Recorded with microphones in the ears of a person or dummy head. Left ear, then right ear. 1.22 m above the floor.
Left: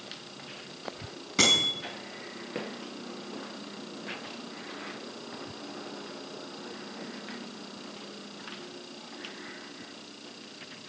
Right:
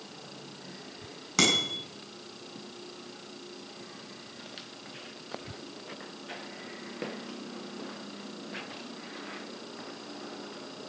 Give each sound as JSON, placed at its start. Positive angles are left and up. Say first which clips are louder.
{"t": 1.4, "sound": "a bicycle bell", "louder": "left 2 dB", "side_deg": -40, "distance_m": 8.0}